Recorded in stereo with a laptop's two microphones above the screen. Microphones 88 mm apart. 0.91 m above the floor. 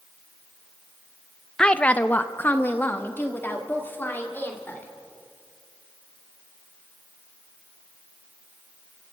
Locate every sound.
1.6 s a woman speaking: 10° left (ahead or behind), 0.5 m; by 4.9 s 25° left (ahead or behind), 3 m